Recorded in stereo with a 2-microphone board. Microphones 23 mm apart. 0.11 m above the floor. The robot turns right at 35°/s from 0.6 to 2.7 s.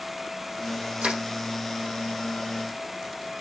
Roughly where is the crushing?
Right.